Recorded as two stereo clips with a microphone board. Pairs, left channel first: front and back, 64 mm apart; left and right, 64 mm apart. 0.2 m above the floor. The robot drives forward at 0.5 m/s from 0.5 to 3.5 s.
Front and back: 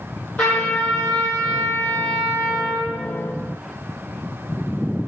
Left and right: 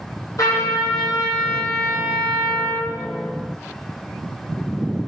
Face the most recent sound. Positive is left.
turn(degrees=85)